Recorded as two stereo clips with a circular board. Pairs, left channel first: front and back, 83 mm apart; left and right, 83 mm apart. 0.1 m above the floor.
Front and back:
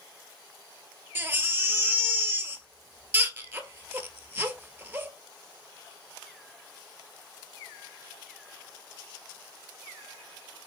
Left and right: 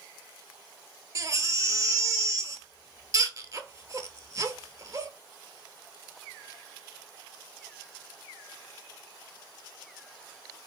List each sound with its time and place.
1.1 s a baby crying: 120° right, 0.6 m